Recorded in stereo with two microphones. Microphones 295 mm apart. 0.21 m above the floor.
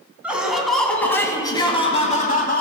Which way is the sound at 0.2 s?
5° right (ahead or behind).